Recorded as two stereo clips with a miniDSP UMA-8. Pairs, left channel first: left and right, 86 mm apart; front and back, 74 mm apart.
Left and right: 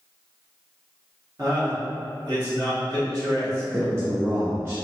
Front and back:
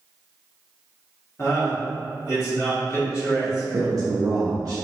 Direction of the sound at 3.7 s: 150° right.